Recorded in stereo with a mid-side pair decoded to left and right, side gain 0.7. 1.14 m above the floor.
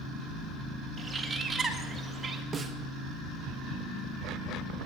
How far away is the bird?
About 1.7 m.